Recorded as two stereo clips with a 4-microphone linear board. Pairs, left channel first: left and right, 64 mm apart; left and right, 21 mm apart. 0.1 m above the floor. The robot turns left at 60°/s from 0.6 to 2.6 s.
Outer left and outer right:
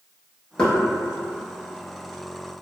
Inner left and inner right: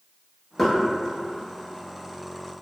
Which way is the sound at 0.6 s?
10° left (ahead or behind).